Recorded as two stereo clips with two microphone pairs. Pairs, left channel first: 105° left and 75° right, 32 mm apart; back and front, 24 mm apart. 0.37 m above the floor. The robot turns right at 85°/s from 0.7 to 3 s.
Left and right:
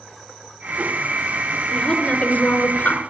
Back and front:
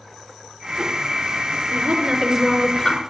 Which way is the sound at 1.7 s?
30° left.